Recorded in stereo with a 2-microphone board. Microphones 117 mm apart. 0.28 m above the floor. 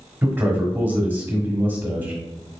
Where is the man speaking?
15° right (ahead or behind), 1.2 m.